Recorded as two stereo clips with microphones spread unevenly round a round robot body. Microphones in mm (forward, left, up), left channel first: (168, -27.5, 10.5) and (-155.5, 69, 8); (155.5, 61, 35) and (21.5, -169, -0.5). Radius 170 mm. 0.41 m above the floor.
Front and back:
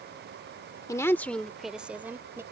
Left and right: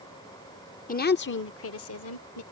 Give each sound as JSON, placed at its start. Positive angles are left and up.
{"t": 0.9, "sound": "a woman speaking", "azimuth_deg": 50}